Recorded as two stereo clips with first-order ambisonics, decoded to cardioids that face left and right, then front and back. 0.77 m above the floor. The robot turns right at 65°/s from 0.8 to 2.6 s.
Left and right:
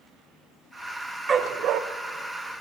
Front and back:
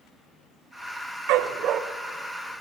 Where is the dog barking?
155° right, 0.9 m; by 1.8 s 125° right, 0.9 m.